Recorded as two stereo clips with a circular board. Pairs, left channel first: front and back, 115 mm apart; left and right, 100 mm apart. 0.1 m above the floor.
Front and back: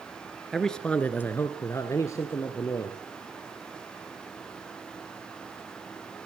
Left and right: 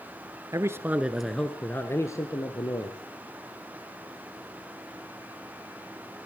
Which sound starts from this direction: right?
A man speaking, at 0.5 s.